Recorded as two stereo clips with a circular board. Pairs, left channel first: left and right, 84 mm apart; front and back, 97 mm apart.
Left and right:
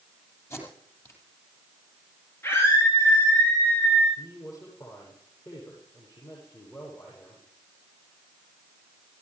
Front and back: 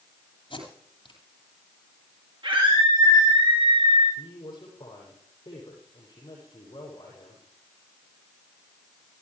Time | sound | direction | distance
0.5 | tape being pulled | 30° left | 9 m
2.4 | a scream | 150° left | 6 m
4.2 | a woman speaking | 45° left | 8.5 m